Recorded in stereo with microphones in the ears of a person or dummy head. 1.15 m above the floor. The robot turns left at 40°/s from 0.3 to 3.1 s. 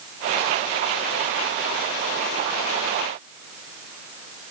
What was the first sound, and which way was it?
Only background noise.